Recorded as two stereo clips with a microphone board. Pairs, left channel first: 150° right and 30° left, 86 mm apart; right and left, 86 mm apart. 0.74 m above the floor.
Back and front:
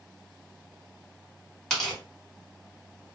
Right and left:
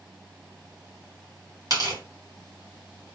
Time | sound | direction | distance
1.7 | tearing paper | 130° left | 1.7 m